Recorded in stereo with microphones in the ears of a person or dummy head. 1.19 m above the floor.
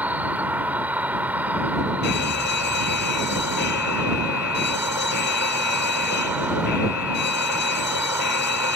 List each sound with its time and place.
0.0 s an insect: 10° right (ahead or behind)
2.0 s an alarm: 50° left (ahead or behind)